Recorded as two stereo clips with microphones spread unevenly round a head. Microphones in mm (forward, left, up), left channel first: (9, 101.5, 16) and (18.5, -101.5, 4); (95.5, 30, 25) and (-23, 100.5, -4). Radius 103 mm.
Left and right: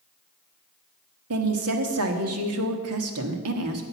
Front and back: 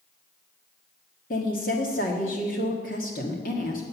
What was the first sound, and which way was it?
A woman speaking, 85° right.